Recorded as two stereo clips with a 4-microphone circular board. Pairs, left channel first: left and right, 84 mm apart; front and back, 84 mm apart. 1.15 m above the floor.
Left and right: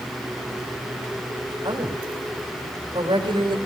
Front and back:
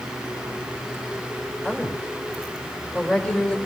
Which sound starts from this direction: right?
A woman speaking, at 1.6 s.